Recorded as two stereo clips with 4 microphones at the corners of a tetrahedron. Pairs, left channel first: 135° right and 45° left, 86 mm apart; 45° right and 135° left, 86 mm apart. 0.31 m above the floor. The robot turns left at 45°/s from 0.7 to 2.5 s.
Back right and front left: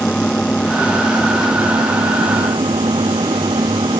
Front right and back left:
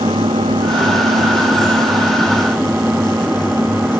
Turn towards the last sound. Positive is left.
turn(degrees=65)